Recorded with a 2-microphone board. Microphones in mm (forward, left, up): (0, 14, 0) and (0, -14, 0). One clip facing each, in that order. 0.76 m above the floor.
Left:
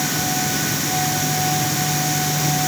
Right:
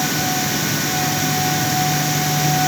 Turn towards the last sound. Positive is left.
No sound to turn to.